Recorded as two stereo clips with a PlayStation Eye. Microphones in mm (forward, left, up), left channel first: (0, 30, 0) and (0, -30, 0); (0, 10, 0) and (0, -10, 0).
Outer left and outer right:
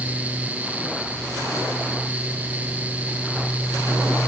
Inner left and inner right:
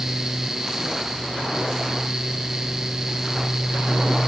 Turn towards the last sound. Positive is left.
No sound to turn to.